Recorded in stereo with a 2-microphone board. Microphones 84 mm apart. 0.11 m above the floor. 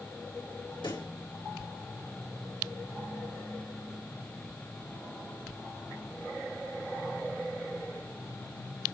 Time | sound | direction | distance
0.8 | a pop | 75° left (ahead or behind) | 5 m